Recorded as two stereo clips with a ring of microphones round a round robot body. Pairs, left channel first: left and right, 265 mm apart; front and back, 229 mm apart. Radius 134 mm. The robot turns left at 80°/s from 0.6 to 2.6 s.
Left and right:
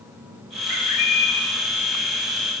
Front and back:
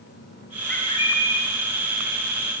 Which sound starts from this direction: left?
A bird, at 0.7 s.